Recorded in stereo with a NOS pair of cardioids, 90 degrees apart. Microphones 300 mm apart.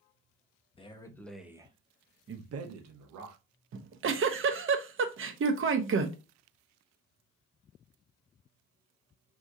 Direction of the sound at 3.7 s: 45° right.